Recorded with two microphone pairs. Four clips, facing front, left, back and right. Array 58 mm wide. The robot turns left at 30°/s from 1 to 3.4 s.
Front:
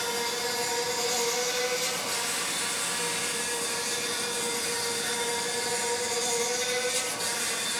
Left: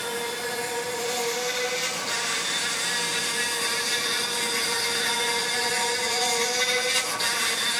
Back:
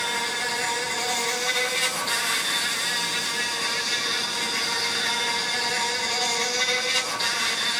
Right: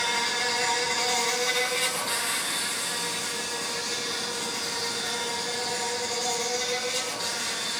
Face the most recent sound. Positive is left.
turn(degrees=145)